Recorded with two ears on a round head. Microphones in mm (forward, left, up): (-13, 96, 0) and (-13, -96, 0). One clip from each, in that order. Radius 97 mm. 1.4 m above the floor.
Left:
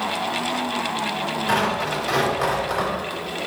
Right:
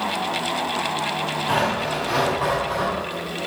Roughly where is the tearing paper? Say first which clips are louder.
Left 1 dB; left.